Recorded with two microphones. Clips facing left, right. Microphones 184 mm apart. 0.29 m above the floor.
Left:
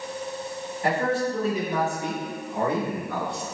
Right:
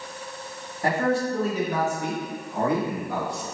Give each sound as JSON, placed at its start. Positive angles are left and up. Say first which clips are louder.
{"t": 0.8, "sound": "a man speaking", "louder": "right 1 dB", "side_deg": -45, "distance_m": 1.7}